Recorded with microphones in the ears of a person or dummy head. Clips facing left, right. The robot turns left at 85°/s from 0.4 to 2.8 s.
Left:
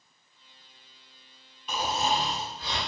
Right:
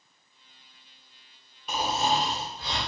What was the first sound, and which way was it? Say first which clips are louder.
Snoring: right 2 dB; 60° right.